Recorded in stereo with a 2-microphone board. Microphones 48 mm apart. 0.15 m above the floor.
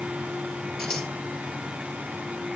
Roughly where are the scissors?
Centre.